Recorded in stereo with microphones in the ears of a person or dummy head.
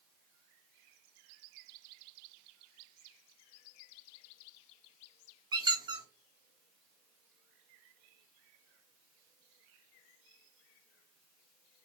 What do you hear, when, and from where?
5.5 s a squeak: 25° right (ahead or behind), 0.6 m